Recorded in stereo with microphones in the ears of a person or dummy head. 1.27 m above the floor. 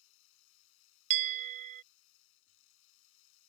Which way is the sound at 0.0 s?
75° left (ahead or behind).